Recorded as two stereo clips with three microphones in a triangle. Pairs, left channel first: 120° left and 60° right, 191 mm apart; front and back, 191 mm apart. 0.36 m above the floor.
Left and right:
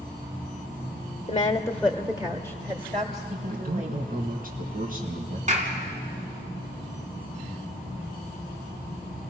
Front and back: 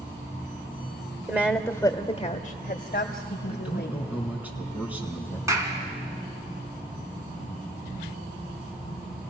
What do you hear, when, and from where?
1.3 s a woman speaking: 115° left, 0.9 m; by 4.1 s 15° right, 2 m
3.5 s a man speaking: 100° right, 3.5 m
5.5 s a clap: 105° right, 3 m